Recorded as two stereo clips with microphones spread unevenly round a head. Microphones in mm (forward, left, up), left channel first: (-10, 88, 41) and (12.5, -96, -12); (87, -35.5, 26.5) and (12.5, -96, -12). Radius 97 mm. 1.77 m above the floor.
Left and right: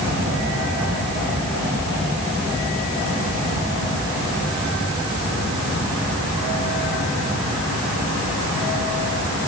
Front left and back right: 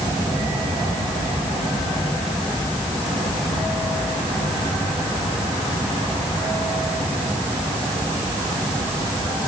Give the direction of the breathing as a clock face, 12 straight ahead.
No breathing in this recording.